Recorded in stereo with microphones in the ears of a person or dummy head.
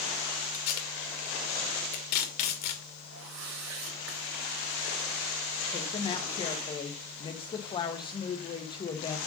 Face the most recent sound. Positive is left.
turn(degrees=20)  # may be behind; listen again after turning